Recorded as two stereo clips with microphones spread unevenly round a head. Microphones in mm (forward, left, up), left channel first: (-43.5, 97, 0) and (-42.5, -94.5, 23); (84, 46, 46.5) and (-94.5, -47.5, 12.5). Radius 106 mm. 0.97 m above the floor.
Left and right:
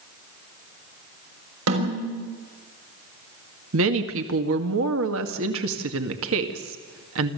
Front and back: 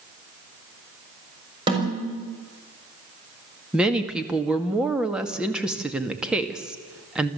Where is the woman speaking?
70° right, 1.9 m.